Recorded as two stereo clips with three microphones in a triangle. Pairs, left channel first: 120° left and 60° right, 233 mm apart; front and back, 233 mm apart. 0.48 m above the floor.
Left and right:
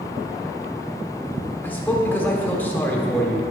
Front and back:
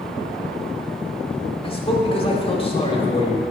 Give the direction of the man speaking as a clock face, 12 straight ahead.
11 o'clock.